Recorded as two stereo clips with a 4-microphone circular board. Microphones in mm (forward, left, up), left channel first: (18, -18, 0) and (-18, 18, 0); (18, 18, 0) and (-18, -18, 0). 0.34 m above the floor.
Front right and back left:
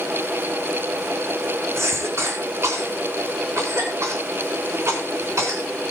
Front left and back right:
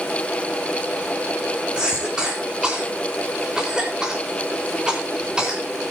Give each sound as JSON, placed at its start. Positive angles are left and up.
{"t": 1.8, "sound": "a cough", "azimuth_deg": 155, "distance_m": 4.5}